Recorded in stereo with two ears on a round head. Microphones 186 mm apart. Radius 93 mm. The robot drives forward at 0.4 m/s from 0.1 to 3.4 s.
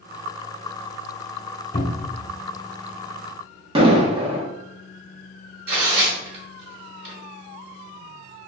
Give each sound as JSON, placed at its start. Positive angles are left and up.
{"t": 1.7, "sound": "a cupboard door", "side_deg": 35, "distance_m": 0.7}
{"t": 3.8, "sound": "an explosion", "side_deg": -25, "distance_m": 1.0}
{"t": 5.7, "sound": "tearing paper", "side_deg": -50, "distance_m": 1.5}